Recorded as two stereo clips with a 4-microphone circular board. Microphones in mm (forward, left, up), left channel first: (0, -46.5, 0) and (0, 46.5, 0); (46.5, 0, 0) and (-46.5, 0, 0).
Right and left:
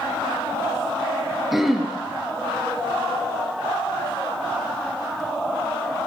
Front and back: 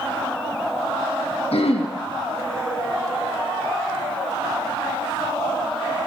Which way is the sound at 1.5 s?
Straight ahead.